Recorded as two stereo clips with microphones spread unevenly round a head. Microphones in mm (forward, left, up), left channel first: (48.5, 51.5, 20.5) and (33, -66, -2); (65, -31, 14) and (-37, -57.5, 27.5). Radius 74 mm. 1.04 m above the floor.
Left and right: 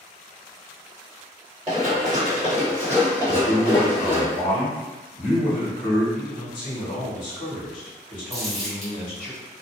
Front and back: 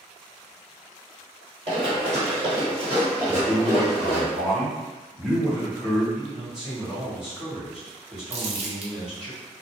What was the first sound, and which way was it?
Running footsteps, straight behind.